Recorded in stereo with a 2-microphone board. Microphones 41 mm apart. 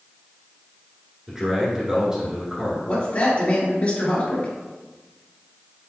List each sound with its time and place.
1.3 s a man speaking: 15° right (ahead or behind), 1.1 m
2.9 s a man speaking: 35° left (ahead or behind), 1.4 m